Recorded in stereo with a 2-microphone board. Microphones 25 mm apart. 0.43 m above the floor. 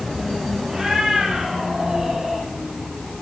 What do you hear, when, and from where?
0.7 s a cat meowing: 25° right (ahead or behind), 6.5 m; by 2.5 s 20° right (ahead or behind), 7 m